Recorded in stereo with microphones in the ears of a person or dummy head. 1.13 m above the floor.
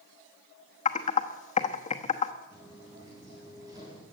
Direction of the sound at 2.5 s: 10° right (ahead or behind).